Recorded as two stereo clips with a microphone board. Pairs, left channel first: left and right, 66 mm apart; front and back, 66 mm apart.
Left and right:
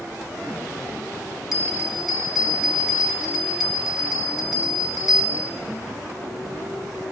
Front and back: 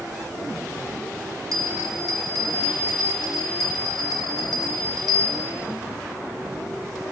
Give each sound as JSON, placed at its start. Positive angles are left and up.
{"t": 1.5, "sound": "a bell", "azimuth_deg": -175, "distance_m": 2.0}